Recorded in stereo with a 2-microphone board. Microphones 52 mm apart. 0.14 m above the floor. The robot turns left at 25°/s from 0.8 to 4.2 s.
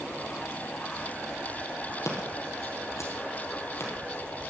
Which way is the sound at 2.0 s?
65° left (ahead or behind).